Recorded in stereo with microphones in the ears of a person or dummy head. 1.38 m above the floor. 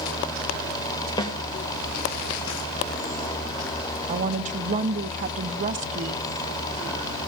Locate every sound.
1.2 s a snare drum: 25° left (ahead or behind), 2 m
4.1 s a woman speaking: 40° right (ahead or behind), 0.9 m